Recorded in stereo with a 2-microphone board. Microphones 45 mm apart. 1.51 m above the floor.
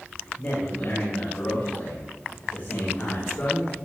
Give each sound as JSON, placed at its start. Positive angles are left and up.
{"t": 0.4, "sound": "a man speaking", "side_deg": 60, "distance_m": 9.0}